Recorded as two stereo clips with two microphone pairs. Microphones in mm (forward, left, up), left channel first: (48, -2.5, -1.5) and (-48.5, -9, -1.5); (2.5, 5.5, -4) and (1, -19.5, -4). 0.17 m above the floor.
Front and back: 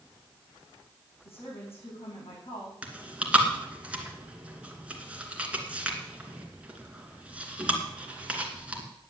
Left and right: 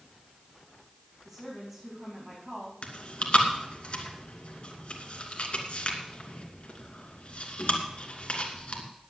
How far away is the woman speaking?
About 9 m.